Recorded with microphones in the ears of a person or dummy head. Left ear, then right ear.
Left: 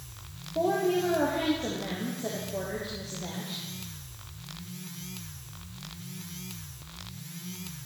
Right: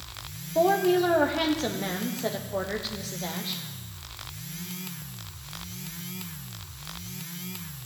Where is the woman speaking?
45° right (ahead or behind), 1.2 m.